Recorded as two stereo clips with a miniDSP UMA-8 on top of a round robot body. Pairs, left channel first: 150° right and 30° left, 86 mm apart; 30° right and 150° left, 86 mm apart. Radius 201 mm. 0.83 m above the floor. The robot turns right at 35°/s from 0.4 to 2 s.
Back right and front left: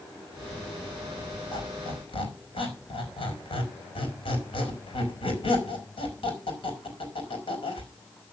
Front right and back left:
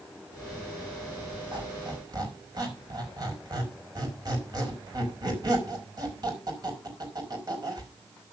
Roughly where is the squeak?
Behind.